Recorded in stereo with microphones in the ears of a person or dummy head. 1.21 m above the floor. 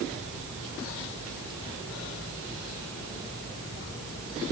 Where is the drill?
I don't hear a drill.